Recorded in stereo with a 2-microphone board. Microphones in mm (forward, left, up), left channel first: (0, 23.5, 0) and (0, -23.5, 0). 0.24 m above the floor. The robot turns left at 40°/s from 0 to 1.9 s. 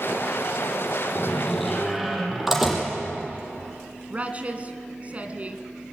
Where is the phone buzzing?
I don't hear a phone buzzing.